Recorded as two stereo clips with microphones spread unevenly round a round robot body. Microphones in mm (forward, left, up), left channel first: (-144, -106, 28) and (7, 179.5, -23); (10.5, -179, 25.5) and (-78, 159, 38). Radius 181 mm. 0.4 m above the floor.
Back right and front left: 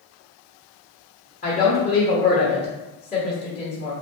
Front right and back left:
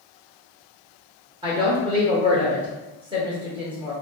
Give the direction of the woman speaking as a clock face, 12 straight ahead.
6 o'clock.